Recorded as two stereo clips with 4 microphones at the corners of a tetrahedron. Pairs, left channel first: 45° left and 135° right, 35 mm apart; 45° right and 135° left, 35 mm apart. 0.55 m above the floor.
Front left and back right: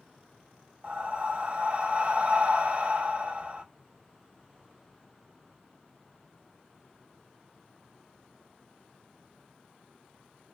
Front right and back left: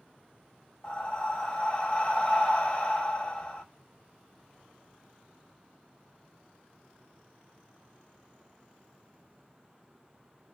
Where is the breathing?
95° right, 1.2 m.